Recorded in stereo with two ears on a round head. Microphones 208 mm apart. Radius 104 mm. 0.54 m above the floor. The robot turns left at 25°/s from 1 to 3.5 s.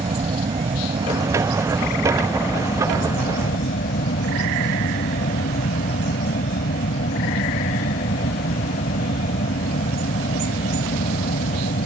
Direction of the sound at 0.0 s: 155° right.